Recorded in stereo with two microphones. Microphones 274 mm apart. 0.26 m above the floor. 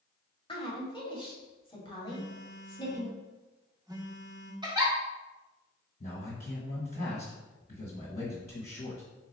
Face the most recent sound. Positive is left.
turn(degrees=35)  # may be behind; listen again after turning